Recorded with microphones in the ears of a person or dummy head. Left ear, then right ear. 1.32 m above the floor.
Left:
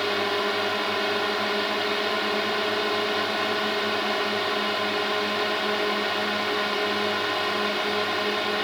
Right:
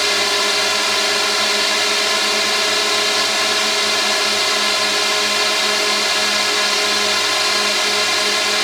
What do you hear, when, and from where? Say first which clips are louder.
0.0 s a drone: right 8 dB; 75° right (ahead or behind)